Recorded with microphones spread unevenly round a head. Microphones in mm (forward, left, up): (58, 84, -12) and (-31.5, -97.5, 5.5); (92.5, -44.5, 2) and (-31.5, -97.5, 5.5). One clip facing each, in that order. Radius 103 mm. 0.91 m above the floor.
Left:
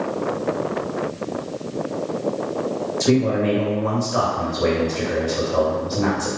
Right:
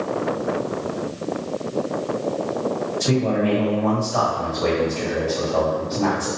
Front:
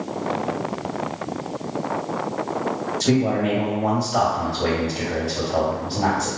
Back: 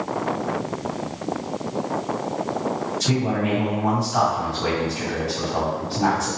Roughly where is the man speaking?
Ahead left.